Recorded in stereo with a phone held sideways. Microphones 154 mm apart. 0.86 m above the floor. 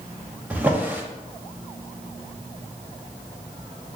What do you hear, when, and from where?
0.5 s a drawer: 10° right (ahead or behind), 0.8 m